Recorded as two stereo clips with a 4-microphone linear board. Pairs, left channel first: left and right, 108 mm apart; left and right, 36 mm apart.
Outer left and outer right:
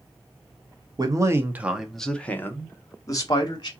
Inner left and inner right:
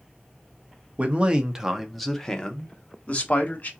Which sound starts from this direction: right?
A man speaking, at 1.0 s.